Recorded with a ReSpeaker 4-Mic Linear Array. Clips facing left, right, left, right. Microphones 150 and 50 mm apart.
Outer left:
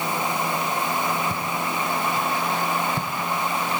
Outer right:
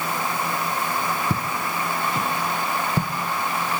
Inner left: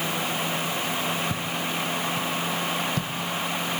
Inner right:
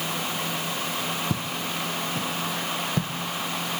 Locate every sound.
1.3 s footsteps: 70° right (ahead or behind), 2.0 m; by 3.1 s 35° right (ahead or behind), 1.8 m